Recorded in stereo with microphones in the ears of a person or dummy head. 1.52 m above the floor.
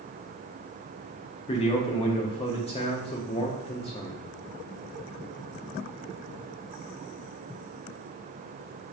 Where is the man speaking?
25° left (ahead or behind), 0.6 m.